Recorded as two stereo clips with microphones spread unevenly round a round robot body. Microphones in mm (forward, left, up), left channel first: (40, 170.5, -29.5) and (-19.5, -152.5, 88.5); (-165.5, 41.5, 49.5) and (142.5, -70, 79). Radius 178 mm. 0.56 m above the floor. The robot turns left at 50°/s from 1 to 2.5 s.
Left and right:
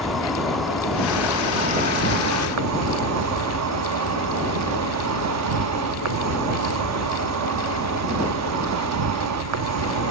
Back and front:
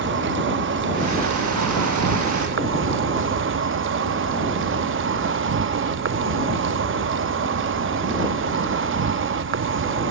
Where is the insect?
20° left; by 10.1 s 55° right.